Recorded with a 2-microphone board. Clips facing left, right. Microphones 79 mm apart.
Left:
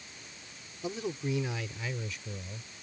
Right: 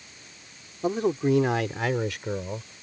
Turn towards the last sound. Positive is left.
turn(degrees=-80)